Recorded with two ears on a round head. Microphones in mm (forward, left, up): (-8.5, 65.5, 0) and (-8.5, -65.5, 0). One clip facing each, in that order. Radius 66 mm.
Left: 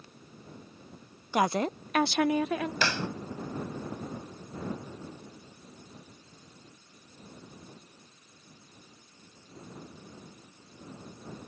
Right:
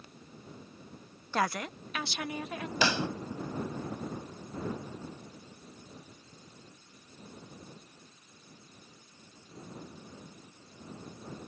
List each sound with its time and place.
1.3 s a woman speaking: 10° left (ahead or behind); by 2.7 s 60° left (ahead or behind)
2.8 s a pop: 10° right (ahead or behind)